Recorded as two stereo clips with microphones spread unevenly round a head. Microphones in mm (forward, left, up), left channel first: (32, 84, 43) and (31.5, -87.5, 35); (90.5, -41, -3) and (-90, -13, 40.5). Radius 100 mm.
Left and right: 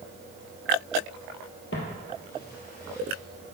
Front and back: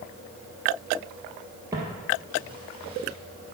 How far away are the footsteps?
About 2.5 m.